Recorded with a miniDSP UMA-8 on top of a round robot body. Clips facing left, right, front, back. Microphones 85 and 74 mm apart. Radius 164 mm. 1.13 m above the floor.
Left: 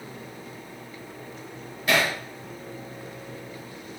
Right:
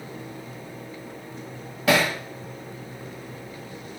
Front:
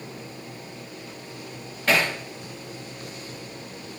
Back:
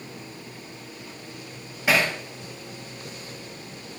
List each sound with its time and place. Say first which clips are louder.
1.9 s hammering: right 3 dB, even; 100° right, 1.1 m